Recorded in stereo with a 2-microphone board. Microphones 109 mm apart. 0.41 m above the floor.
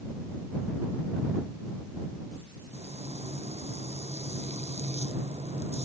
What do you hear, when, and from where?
2.7 s frying: 70° right (ahead or behind)